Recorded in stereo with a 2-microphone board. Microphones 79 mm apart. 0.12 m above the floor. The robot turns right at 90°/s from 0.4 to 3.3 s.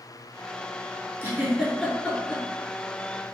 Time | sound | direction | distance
1.2 | a giggle | 30° right (ahead or behind) | 1.2 m